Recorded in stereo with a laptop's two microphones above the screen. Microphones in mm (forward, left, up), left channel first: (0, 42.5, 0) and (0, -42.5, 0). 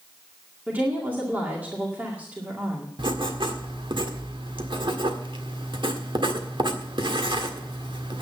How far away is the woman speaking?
About 2 m.